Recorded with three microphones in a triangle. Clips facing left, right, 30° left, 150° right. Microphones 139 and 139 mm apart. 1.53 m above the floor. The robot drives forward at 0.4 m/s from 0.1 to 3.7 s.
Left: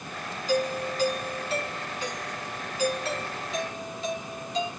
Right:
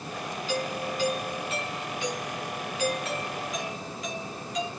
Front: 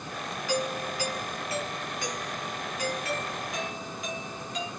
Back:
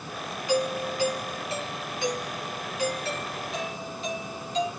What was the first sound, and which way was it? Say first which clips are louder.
A doorbell: left 5 dB, back 5 dB; 140° left.